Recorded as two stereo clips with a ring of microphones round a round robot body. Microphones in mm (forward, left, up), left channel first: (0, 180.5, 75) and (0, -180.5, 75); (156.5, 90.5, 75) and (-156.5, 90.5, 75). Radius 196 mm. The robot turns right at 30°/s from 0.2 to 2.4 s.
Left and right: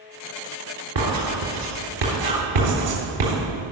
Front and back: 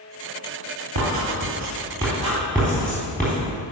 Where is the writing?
130° right, 4 m; by 3.3 s 90° right, 4 m.